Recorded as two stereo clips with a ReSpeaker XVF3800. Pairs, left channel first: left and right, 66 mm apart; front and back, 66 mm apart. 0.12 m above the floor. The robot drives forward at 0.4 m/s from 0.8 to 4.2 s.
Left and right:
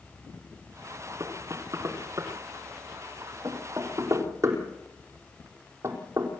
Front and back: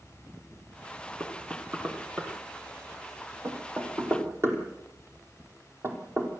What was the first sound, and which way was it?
Knocking, 115° right.